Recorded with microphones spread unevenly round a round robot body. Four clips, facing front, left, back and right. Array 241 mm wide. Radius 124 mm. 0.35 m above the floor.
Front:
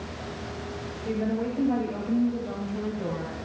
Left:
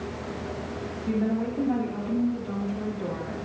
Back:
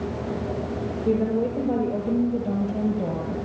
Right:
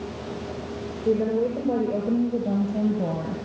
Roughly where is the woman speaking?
Behind right.